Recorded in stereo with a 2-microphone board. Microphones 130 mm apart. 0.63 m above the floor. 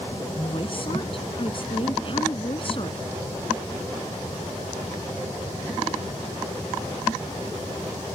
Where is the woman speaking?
45° left (ahead or behind).